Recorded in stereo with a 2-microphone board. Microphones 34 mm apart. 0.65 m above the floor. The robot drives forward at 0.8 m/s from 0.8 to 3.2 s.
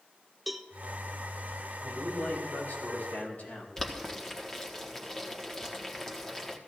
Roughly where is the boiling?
Centre.